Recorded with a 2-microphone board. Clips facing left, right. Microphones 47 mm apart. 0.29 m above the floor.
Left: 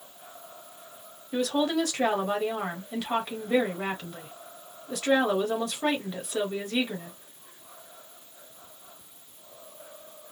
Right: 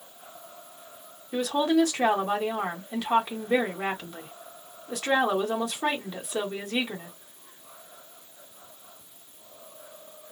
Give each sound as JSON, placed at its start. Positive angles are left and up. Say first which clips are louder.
{"t": 1.3, "sound": "a woman speaking", "louder": "right 3 dB", "side_deg": -10, "distance_m": 1.2}